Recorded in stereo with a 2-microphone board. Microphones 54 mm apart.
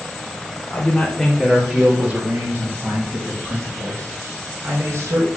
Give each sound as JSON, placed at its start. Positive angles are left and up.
{"t": 0.7, "sound": "a man speaking", "side_deg": 35, "distance_m": 1.4}